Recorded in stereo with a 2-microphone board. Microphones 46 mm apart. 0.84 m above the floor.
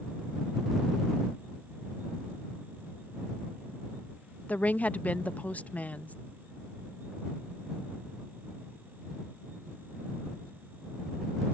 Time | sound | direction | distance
4.5 | a woman speaking | 35° left (ahead or behind) | ?